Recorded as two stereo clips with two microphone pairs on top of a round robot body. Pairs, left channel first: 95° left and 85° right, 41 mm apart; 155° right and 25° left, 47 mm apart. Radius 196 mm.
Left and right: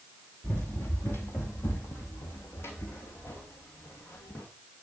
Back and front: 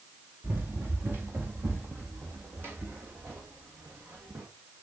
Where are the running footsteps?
65° left, 1.4 m.